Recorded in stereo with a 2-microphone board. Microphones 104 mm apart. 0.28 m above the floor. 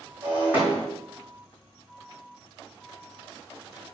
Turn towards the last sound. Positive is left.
turn(degrees=-15)  # may be behind; listen again after turning